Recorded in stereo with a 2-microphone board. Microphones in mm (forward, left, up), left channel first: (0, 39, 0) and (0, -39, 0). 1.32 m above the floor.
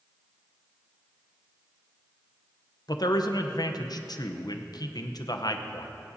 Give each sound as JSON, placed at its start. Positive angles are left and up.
{"t": 2.9, "sound": "a man speaking", "side_deg": 55, "distance_m": 0.8}